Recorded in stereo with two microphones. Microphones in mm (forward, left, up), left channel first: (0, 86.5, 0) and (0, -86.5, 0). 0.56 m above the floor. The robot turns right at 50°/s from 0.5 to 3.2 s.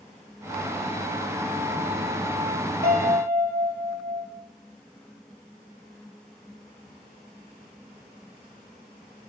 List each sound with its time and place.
2.8 s a piano: 75° right (ahead or behind), 2 m; by 4.3 s 60° right (ahead or behind), 2 m